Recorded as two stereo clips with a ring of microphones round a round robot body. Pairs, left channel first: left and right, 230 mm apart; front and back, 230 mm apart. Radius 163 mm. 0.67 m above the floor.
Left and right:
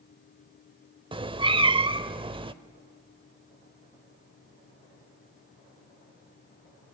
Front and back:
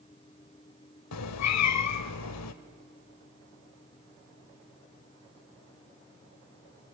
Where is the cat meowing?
20° right, 0.9 m.